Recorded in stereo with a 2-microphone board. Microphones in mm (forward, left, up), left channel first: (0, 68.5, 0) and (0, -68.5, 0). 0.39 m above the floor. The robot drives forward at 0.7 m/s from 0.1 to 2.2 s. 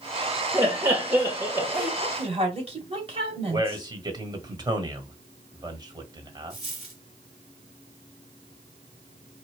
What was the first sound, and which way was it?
Laughter, 20° right (ahead or behind).